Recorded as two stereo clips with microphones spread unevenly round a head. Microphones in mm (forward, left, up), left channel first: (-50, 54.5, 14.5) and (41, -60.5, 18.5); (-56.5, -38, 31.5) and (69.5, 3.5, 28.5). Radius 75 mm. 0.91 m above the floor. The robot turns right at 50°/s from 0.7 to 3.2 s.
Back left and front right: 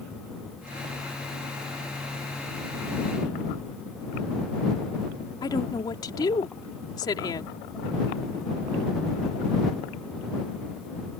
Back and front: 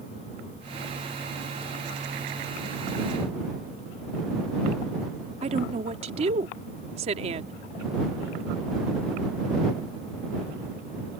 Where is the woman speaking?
65° left.